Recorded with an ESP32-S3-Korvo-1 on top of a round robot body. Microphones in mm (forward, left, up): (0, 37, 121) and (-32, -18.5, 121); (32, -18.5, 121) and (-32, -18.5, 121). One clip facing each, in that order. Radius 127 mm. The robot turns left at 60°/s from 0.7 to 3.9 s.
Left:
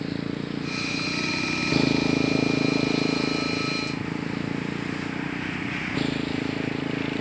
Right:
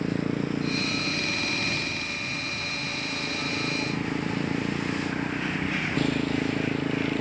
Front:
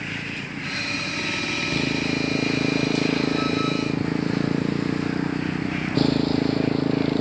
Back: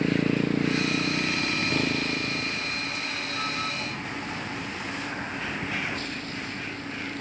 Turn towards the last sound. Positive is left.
turn(degrees=-30)